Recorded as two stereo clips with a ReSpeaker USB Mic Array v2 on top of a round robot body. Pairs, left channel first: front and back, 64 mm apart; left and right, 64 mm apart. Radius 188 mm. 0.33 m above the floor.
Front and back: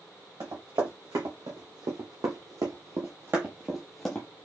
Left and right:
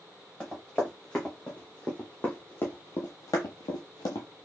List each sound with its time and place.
0.4 s running footsteps: 170° left, 2.5 m; by 4.3 s 65° left, 0.7 m